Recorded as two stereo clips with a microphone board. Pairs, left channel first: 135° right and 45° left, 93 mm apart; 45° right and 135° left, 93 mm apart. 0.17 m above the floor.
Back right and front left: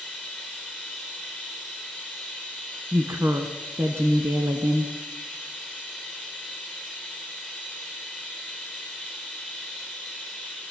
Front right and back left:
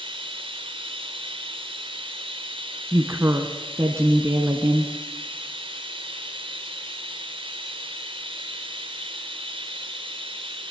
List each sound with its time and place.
0.0 s running water: 135° left, 4.5 m
2.9 s a woman speaking: 90° left, 1.4 m